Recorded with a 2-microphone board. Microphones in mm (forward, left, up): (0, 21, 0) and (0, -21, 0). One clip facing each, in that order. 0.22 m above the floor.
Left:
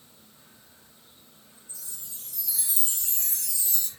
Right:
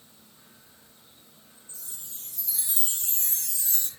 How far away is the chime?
About 3 m.